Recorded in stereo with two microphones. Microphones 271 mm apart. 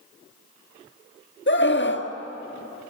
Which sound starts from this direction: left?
A scream, at 1.5 s.